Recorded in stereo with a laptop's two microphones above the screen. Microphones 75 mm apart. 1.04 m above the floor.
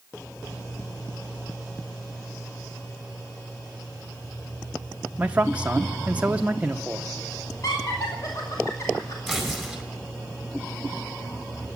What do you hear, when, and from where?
5.2 s a man speaking: 20° right (ahead or behind), 0.7 m
7.6 s laughter: 55° left (ahead or behind), 2.5 m
9.3 s tearing paper: centre (ahead or behind), 4.5 m